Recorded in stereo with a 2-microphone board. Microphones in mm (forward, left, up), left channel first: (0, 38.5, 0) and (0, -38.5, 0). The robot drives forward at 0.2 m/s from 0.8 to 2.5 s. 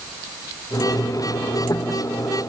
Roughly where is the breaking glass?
I don't hear breaking glass.